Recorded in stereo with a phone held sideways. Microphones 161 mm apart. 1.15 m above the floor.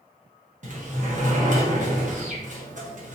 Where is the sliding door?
50° right (ahead or behind), 0.9 m.